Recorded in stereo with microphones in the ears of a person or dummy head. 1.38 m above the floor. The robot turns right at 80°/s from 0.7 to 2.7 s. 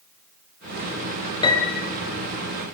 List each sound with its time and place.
1.4 s a piano: 150° left, 4 m; by 1.9 s 175° right, 4 m